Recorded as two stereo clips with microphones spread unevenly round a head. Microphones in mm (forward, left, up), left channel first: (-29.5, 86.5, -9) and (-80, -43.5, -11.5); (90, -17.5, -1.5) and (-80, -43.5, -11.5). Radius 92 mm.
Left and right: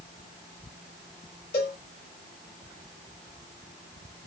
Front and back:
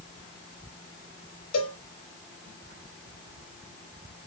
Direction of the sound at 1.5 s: 30° left.